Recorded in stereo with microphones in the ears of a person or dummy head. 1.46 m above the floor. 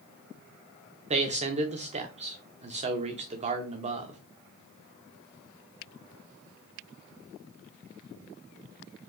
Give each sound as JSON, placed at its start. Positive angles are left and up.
{"t": 1.1, "sound": "a man speaking", "side_deg": -30, "distance_m": 0.8}